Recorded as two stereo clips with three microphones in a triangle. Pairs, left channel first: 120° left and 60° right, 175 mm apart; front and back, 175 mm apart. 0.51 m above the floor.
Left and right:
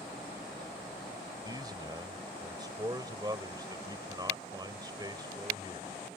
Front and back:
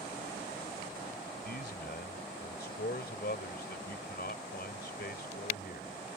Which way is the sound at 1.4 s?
5° left.